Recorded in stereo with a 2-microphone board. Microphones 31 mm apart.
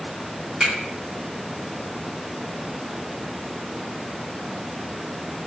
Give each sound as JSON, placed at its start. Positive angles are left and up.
{"t": 0.6, "sound": "a finger snap", "side_deg": -35, "distance_m": 1.5}